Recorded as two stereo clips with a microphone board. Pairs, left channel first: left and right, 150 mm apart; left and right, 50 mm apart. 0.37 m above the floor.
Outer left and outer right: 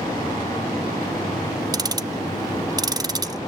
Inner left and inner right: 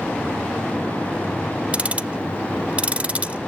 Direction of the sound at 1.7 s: 25° right (ahead or behind).